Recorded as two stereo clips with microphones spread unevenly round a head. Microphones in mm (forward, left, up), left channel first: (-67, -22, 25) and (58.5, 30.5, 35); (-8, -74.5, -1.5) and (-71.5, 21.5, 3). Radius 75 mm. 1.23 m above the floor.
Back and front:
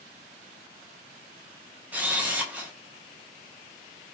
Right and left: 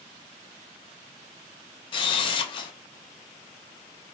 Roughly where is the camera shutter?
Ahead right.